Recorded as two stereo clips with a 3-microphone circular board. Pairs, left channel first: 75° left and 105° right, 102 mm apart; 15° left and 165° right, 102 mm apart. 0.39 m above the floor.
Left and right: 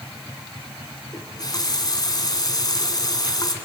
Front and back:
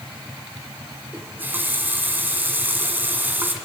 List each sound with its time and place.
1.1 s a running tap: 125° left, 2.5 m